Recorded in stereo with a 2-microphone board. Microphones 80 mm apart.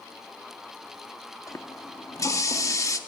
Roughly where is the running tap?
Left.